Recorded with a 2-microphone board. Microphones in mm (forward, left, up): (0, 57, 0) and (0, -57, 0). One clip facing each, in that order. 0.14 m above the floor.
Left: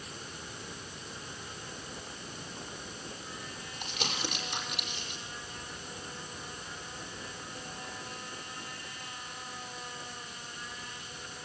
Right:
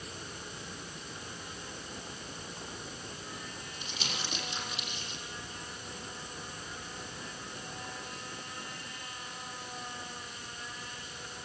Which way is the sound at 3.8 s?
55° left (ahead or behind).